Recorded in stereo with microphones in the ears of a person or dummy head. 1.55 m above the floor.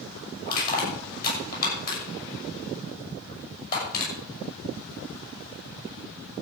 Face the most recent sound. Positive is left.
turn(degrees=50)  # may be behind; listen again after turning